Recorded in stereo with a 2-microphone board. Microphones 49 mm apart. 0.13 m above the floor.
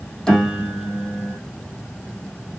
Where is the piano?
10° left (ahead or behind), 1.8 m.